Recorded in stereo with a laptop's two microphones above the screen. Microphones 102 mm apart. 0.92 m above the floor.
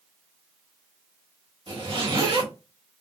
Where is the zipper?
55° right (ahead or behind), 1.6 m.